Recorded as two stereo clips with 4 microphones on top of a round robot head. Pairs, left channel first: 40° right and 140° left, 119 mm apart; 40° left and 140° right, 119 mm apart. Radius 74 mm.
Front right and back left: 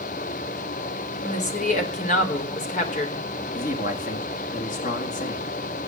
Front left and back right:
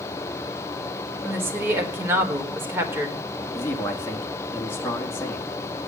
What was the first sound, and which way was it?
A woman speaking, 65° right.